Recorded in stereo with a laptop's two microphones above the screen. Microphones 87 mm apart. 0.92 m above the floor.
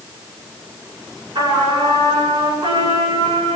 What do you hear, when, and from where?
1.4 s a trumpet: 60° right (ahead or behind), 9 m